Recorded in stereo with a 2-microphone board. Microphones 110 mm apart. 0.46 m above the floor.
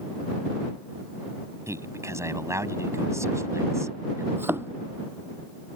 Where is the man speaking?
25° right (ahead or behind).